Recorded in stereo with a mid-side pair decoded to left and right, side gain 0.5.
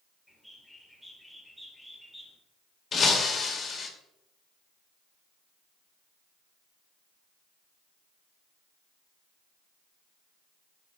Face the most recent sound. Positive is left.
turn(degrees=40)